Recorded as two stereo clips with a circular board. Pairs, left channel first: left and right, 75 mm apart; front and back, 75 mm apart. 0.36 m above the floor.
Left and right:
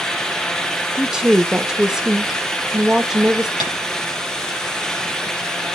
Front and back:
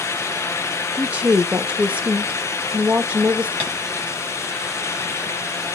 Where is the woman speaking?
160° right, 1.2 m.